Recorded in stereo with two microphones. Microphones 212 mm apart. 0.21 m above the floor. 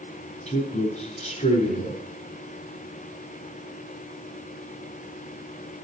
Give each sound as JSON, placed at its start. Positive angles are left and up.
{"t": 0.5, "sound": "a man speaking", "side_deg": 30, "distance_m": 1.2}